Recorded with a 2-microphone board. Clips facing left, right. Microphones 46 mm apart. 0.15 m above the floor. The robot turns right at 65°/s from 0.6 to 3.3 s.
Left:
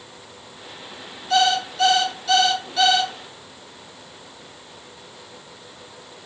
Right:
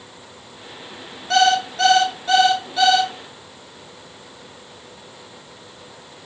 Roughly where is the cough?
I don't hear a cough.